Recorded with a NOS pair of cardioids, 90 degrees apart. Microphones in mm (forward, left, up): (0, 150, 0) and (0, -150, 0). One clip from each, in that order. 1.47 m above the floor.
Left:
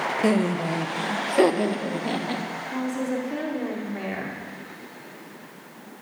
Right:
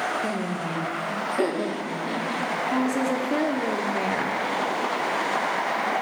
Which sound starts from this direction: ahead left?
Laughter, at 0.2 s.